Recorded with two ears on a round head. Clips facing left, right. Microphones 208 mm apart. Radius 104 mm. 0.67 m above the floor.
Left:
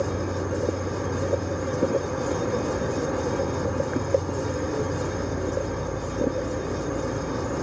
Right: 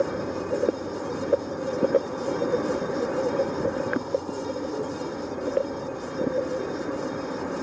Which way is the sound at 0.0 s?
45° left (ahead or behind).